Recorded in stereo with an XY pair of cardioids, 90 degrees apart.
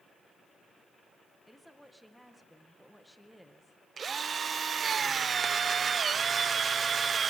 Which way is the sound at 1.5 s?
Straight ahead.